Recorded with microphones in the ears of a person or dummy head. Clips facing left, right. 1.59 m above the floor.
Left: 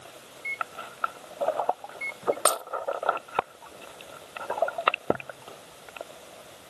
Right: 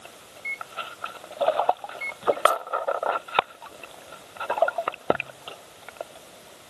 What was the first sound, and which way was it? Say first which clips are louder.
A microwave: even; 10° right (ahead or behind).